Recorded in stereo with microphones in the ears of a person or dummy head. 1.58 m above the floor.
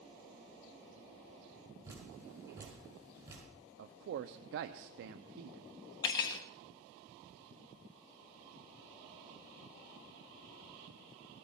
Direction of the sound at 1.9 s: 20° right (ahead or behind).